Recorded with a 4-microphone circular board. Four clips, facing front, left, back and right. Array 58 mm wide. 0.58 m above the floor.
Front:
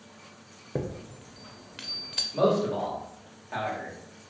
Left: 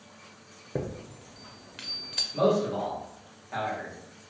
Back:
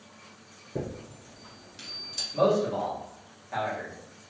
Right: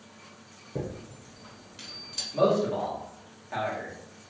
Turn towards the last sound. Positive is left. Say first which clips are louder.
# right 1 dB, even
turn(degrees=-45)